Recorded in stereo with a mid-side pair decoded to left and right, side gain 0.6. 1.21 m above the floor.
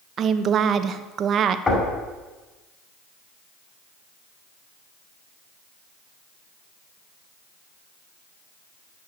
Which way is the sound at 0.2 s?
45° right.